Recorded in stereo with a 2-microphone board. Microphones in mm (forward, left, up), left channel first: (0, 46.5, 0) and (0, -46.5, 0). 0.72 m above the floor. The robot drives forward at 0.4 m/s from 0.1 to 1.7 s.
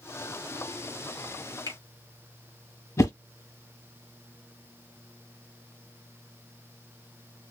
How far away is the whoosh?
About 0.9 m.